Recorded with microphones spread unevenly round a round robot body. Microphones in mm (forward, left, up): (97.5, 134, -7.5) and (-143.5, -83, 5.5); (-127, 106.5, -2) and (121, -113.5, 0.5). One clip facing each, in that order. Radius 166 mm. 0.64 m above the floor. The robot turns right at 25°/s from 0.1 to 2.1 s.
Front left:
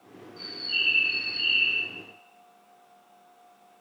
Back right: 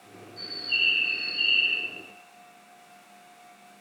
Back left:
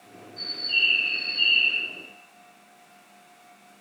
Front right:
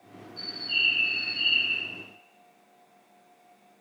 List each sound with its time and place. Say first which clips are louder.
0.4 s a bird: even, back left 1 dB; 85° right, 0.9 m; by 1.8 s 50° right, 0.9 m